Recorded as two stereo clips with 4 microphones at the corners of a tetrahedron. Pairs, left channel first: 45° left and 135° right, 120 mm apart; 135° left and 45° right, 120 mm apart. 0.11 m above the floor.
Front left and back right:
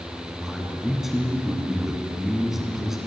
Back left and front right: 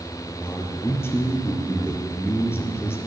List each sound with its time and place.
0.4 s a man speaking: 145° left, 1.5 m